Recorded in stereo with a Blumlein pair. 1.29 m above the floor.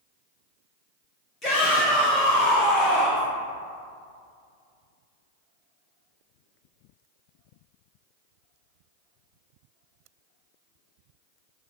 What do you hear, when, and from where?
1.4 s a shout: 15° left, 0.6 m